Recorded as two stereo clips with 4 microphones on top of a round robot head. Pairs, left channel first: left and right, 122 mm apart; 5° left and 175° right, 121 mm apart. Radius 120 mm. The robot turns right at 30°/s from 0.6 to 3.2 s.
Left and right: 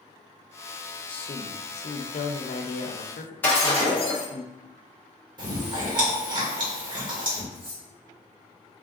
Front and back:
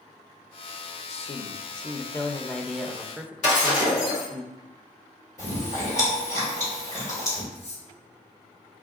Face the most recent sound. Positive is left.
turn(degrees=-45)